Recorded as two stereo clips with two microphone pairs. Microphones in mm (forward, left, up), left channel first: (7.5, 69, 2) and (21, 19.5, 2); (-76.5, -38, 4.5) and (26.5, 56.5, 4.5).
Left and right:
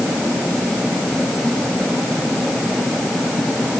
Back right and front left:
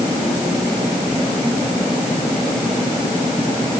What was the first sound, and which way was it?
Only background noise.